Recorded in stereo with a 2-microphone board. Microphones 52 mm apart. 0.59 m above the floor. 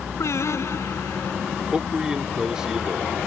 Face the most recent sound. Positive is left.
turn(degrees=-15)  # may be behind; listen again after turning